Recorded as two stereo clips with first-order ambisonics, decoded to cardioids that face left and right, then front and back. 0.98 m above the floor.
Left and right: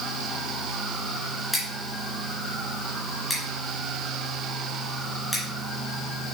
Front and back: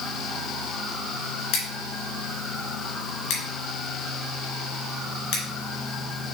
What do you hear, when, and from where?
1.5 s scissors: 5° left, 2.5 m